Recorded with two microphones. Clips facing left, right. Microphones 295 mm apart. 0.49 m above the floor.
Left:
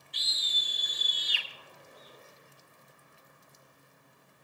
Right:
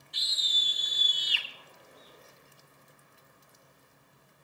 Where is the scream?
50° right (ahead or behind), 3.5 m; by 1.5 s 40° right (ahead or behind), 3 m.